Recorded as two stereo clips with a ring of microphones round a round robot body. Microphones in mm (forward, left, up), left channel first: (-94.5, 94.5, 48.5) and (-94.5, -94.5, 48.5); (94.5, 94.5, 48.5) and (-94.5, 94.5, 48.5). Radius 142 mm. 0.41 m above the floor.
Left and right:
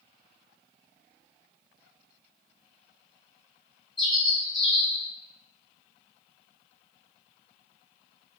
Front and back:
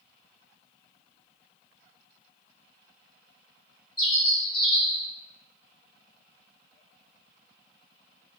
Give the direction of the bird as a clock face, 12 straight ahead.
12 o'clock.